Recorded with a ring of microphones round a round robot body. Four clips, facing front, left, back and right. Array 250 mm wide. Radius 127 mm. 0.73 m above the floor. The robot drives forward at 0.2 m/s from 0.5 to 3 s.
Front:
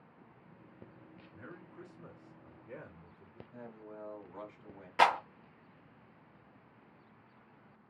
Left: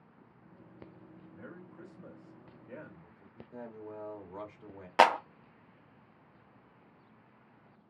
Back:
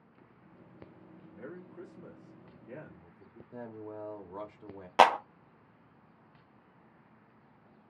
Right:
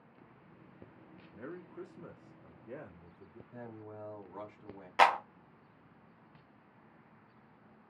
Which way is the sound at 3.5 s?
155° left.